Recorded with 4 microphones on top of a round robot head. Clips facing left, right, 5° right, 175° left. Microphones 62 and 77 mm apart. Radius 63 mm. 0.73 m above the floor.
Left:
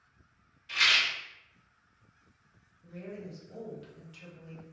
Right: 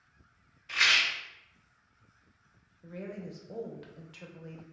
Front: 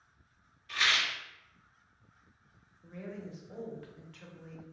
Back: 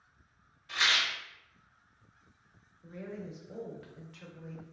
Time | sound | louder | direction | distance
0.7 | a rattle | right 1 dB, even | 140° right | 1.2 m
2.8 | a woman speaking | right 2 dB, back 1 dB | 95° right | 0.7 m